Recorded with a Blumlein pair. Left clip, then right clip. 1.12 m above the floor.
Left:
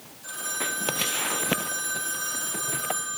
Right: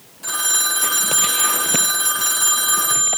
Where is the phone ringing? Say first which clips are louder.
Right 10 dB; 35° right, 2 m.